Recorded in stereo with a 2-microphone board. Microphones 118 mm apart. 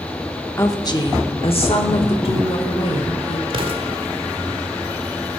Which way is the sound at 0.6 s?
20° left (ahead or behind).